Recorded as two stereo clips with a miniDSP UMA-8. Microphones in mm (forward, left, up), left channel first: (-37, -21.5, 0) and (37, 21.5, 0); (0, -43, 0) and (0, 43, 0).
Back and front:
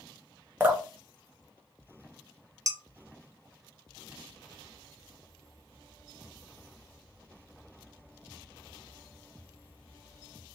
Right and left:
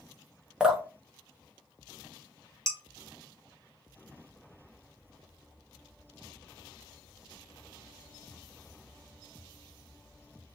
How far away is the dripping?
About 0.8 m.